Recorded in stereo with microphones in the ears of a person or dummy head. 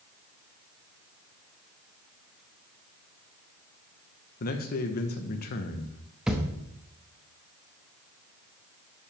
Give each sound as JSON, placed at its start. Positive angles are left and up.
{"t": 4.4, "sound": "a man speaking", "side_deg": 55, "distance_m": 1.1}
{"t": 6.3, "sound": "a thud", "side_deg": -5, "distance_m": 0.9}